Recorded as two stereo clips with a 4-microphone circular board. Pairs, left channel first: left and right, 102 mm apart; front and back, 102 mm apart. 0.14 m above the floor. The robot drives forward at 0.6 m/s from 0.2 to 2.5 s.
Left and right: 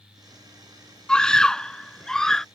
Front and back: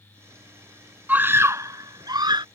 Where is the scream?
155° left; by 2.5 s 175° left.